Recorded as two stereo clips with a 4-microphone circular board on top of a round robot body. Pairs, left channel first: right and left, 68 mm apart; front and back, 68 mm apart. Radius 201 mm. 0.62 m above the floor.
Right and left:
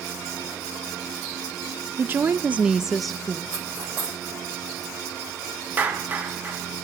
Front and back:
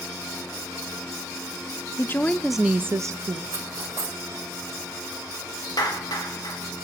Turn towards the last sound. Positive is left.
turn(degrees=25)